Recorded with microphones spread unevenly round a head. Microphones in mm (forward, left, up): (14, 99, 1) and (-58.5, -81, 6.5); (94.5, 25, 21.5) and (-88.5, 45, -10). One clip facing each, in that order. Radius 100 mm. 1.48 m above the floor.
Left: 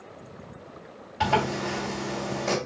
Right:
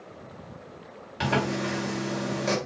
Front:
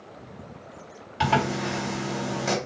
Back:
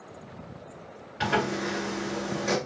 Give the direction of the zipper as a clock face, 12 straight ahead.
2 o'clock.